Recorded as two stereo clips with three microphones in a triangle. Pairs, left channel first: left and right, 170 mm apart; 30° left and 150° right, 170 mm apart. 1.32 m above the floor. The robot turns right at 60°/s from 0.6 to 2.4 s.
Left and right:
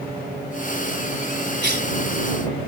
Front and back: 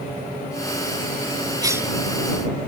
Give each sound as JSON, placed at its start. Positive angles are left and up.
{"t": 1.6, "sound": "a cough", "azimuth_deg": -85}